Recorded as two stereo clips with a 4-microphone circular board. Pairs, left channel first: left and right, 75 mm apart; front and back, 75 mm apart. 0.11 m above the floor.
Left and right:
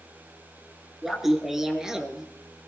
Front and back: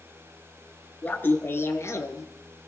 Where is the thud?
No thud in this recording.